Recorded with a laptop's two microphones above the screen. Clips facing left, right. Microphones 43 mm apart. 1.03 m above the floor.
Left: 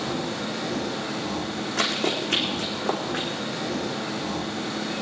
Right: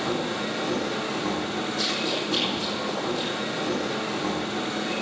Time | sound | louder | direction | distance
0.0 | a machine running | right 1 dB | 80° right | 9 m
1.8 | running footsteps | left 5 dB | 65° left (ahead or behind) | 4 m